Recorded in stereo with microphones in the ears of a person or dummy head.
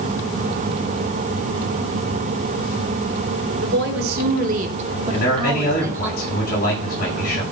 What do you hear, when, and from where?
3.6 s a woman speaking: 70° right (ahead or behind), 4 m; by 6.1 s 10° right (ahead or behind), 3 m
5.1 s a man speaking: 55° left (ahead or behind), 9.5 m